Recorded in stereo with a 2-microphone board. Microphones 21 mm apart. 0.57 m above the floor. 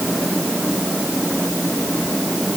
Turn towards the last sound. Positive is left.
No sound to turn to.